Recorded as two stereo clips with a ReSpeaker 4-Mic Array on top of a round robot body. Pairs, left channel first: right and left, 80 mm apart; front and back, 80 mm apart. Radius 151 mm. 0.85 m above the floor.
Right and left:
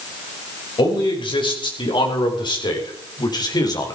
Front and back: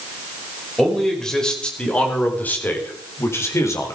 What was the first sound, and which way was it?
A man speaking, 90° right.